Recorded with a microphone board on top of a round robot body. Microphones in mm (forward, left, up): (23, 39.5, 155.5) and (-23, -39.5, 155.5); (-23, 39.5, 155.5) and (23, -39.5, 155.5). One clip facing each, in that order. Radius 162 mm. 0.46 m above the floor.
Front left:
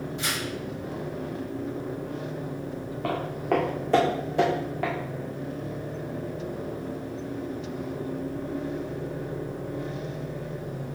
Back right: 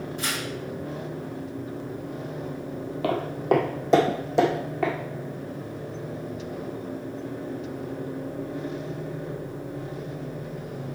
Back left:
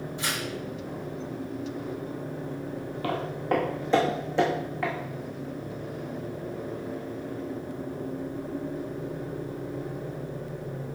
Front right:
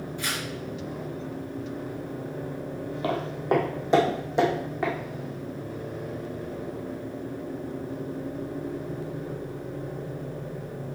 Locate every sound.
0.2 s tearing paper: 170° right, 3.5 m
3.0 s footsteps: 130° right, 1.3 m; by 4.9 s 135° right, 3 m